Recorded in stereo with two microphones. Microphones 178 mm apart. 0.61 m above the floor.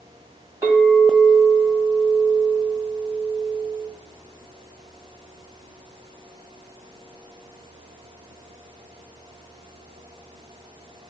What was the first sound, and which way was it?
A clink, 15° right (ahead or behind).